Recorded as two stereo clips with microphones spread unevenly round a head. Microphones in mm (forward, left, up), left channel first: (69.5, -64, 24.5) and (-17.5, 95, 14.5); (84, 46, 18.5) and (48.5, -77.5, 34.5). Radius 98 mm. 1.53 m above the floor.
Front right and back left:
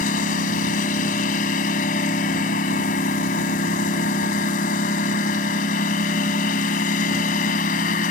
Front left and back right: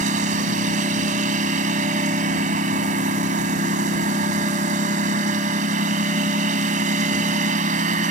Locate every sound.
0.0 s a lawn mower: 110° right